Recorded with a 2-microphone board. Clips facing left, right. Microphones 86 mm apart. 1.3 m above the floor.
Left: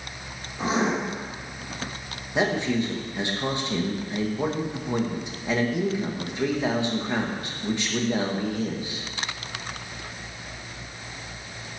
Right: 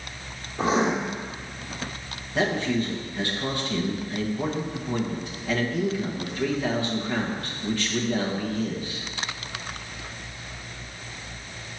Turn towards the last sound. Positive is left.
turn(degrees=20)  # may be behind; listen again after turning